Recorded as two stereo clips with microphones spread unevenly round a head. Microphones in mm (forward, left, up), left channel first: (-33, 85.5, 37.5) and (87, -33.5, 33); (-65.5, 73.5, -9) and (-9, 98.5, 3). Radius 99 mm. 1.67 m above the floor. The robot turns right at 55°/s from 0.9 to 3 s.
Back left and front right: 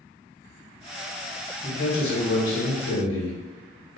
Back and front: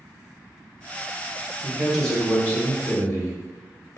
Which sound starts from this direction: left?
A man speaking, at 1.6 s.